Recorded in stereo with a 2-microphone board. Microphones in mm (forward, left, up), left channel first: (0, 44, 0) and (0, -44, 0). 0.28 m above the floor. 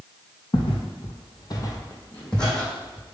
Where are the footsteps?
75° left (ahead or behind), 0.9 m; by 3.1 s 5° right (ahead or behind), 1.3 m.